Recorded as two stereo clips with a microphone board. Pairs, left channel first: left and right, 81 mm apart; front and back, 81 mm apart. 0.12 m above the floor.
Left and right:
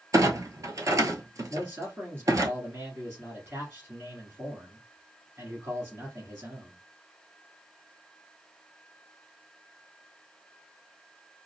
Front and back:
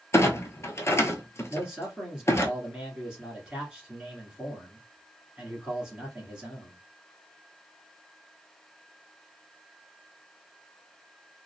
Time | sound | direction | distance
0.1 | a clunk | 50° right | 0.6 m
1.5 | a man speaking | 110° right | 1.3 m